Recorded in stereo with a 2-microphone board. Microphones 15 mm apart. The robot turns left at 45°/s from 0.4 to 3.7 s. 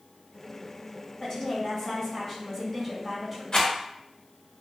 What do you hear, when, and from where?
1.2 s a woman speaking: 85° left, 1.8 m; by 3.4 s 15° right, 1.8 m
3.5 s a rattle: 50° left (ahead or behind), 0.9 m; by 3.7 s 45° left (ahead or behind), 0.9 m